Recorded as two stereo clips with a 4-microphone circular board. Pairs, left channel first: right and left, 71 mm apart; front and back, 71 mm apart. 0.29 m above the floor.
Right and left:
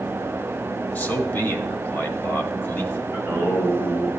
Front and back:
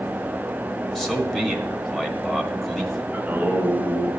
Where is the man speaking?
85° right, 1.2 m.